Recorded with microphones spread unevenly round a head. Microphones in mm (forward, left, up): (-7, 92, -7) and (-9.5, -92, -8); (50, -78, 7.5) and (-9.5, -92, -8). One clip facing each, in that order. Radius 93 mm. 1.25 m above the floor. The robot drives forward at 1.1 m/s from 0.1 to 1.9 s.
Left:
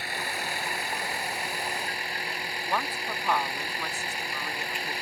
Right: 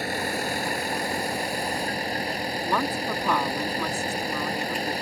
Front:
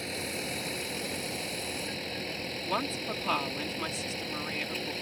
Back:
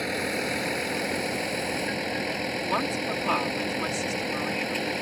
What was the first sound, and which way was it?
A vehicle, 140° right.